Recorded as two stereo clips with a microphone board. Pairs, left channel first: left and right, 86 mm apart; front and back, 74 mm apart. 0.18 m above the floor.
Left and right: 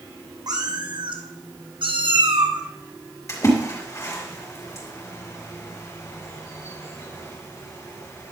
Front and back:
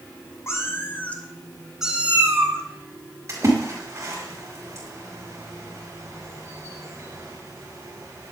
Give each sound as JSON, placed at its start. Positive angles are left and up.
{"t": 0.5, "sound": "a cat meowing", "azimuth_deg": -55, "distance_m": 1.5}
{"t": 3.3, "sound": "a splash", "azimuth_deg": 135, "distance_m": 4.0}